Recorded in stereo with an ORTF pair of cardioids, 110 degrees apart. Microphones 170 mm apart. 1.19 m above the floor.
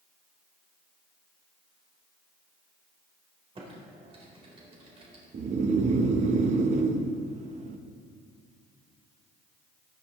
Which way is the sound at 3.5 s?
35° right.